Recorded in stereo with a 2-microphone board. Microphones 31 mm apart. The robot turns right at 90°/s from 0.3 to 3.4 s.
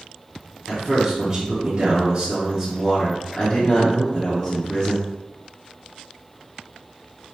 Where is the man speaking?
170° right, 1.5 m; by 5.1 s 75° left, 1.5 m.